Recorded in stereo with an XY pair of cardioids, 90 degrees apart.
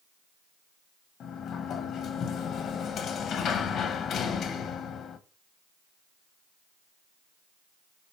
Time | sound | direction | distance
1.2 | a sliding door | 70° left | 1.4 m